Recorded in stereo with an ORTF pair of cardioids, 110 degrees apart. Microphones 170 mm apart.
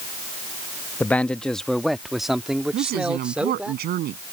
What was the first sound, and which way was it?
A man speaking, 10° left.